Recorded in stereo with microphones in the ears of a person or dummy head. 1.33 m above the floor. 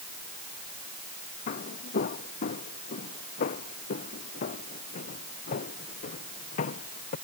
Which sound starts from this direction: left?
Footsteps, at 1.5 s.